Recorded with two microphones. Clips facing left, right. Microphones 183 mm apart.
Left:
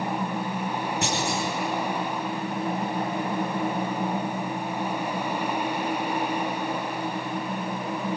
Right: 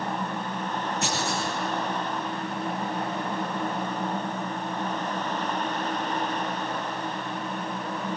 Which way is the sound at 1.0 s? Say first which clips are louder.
Left 2 dB; 70° left (ahead or behind).